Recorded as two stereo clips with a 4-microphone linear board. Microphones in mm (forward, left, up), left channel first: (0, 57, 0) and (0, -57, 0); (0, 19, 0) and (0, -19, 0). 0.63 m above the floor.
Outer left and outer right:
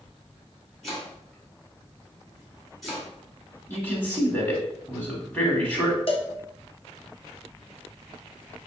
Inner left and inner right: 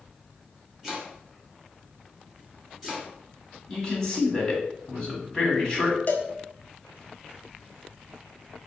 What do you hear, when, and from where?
0.8 s chopping: centre (ahead or behind), 2.5 m
3.7 s a man speaking: 20° left (ahead or behind), 1.7 m
6.1 s a cowbell: 50° left (ahead or behind), 0.6 m